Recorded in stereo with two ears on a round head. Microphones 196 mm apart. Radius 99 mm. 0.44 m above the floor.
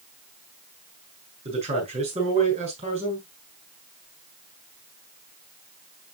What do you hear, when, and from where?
1.4 s a man speaking: 30° right (ahead or behind), 7 m